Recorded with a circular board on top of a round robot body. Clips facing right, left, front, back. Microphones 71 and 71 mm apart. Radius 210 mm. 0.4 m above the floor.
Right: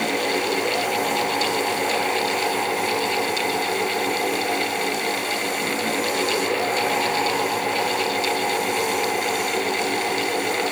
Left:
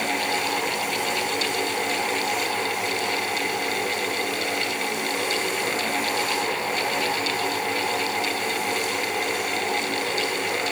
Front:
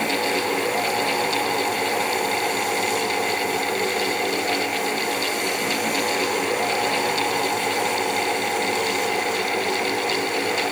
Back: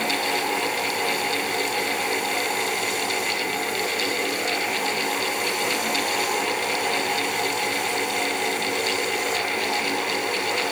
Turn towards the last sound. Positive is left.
No sound to turn to.